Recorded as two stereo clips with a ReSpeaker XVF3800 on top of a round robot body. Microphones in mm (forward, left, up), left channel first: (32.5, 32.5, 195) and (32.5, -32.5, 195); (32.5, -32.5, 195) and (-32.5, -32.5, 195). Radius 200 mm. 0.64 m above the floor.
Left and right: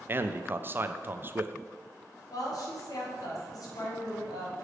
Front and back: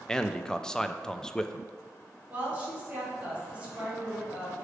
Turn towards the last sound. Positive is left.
turn(degrees=110)